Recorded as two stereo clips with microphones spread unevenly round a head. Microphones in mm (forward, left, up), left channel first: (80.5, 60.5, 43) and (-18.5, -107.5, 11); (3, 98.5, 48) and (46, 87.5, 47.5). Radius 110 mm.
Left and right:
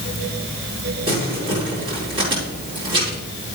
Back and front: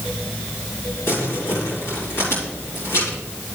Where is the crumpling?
170° left, 4.5 m.